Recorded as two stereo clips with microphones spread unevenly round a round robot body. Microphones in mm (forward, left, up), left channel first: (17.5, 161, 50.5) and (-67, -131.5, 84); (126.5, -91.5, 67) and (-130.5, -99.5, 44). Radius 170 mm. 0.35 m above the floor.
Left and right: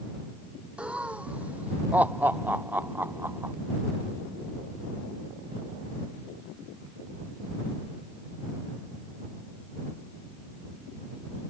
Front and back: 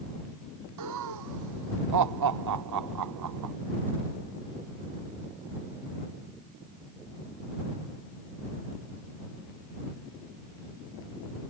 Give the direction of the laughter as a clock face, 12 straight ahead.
6 o'clock.